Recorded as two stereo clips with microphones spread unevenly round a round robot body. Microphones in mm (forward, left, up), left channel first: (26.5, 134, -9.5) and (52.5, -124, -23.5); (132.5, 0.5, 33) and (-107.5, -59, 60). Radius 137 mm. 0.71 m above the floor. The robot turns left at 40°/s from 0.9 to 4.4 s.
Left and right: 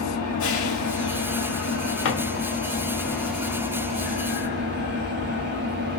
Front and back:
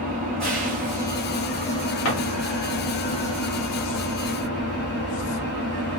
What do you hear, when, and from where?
0.0 s an engine running: 105° left, 1.3 m; by 6.0 s 35° right, 1.3 m
2.0 s a drawer: 50° left, 1.2 m; by 2.2 s 45° left, 1.2 m